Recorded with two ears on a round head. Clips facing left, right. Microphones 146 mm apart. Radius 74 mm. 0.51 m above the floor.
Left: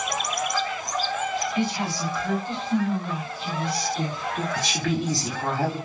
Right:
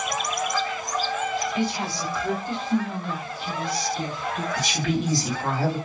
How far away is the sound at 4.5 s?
About 1.3 m.